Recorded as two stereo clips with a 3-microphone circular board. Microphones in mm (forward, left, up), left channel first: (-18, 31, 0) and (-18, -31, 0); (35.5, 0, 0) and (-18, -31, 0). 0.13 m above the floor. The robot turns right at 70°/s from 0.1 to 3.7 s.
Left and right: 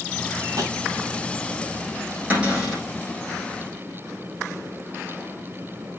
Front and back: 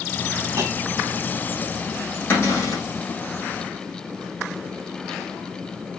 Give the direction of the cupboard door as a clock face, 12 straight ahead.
1 o'clock.